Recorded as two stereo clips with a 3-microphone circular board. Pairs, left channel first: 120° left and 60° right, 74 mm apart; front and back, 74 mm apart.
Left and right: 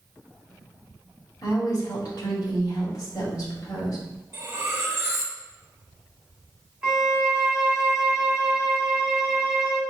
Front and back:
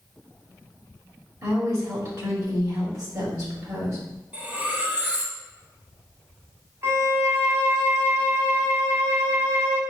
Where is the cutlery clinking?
110° right, 0.8 m.